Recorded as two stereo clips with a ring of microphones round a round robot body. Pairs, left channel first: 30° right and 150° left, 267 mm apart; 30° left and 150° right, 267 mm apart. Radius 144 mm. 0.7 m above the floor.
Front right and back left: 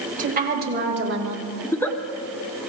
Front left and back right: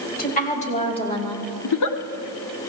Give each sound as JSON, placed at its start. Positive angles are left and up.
{"t": 0.2, "sound": "a woman speaking", "azimuth_deg": 90, "distance_m": 3.5}
{"t": 1.6, "sound": "a giggle", "azimuth_deg": 50, "distance_m": 1.0}